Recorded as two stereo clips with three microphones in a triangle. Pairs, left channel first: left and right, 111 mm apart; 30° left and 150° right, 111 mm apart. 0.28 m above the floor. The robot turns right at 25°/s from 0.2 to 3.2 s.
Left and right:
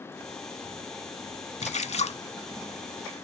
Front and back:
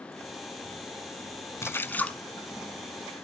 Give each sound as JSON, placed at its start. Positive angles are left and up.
{"t": 1.6, "sound": "a splash", "azimuth_deg": 95, "distance_m": 0.6}